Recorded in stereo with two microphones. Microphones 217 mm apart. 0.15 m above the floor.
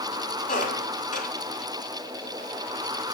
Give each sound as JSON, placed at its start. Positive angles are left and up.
{"t": 0.5, "sound": "a squeak", "side_deg": 40, "distance_m": 1.6}